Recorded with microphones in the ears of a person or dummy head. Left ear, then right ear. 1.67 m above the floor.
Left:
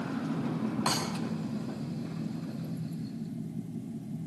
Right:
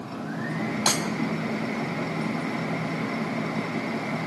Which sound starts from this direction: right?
Breaking glass, at 0.9 s.